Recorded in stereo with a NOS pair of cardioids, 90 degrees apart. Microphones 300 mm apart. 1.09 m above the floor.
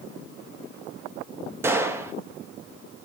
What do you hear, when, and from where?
1.6 s a gunshot: 10° right, 1.2 m